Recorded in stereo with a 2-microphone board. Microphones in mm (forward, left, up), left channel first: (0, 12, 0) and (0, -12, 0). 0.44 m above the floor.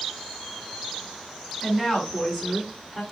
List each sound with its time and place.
1.6 s a woman speaking: 20° left (ahead or behind), 3.5 m; by 3.0 s 5° left (ahead or behind), 4 m